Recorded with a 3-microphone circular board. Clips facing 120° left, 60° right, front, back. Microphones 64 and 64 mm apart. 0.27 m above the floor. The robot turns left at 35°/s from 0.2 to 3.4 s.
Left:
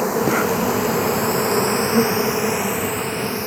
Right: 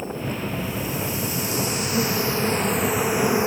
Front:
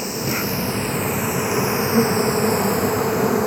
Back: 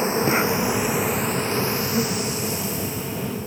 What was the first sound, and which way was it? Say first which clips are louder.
An insect: left 10 dB, back 4 dB; 120° left.